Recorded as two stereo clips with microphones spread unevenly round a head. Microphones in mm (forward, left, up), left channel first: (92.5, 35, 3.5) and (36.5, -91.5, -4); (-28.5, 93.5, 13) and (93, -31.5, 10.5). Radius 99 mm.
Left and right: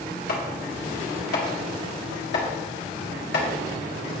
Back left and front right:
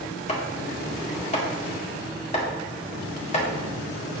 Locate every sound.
0.3 s chopping: 80° left, 2.5 m